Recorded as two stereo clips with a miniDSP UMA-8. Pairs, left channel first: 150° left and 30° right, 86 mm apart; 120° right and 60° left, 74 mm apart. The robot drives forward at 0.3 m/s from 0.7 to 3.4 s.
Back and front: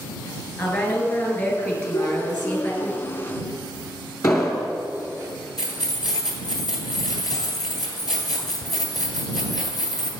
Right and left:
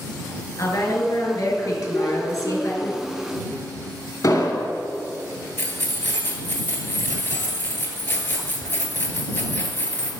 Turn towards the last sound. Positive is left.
turn(degrees=180)